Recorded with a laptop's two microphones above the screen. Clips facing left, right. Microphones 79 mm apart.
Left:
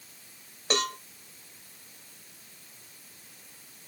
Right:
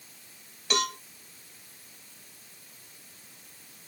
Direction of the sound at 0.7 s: 35° left (ahead or behind).